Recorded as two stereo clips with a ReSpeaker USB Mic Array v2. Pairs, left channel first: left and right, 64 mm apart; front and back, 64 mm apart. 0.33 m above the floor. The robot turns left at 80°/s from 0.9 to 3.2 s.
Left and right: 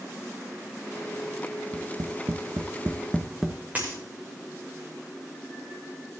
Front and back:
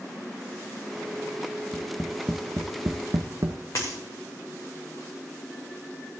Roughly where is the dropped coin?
Ahead right.